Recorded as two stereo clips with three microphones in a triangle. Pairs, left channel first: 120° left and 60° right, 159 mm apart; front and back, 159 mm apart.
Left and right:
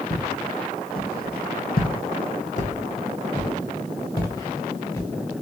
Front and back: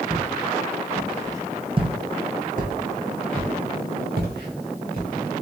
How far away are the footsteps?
About 1.4 m.